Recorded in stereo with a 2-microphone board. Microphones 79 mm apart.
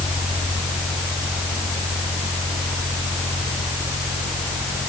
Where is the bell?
No bell in this recording.